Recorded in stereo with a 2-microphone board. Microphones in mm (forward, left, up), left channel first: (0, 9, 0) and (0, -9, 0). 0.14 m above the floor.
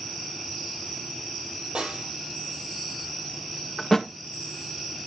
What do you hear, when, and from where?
1.8 s a snare drum: 70° right (ahead or behind), 4 m
3.8 s a thud: 10° left (ahead or behind), 1.8 m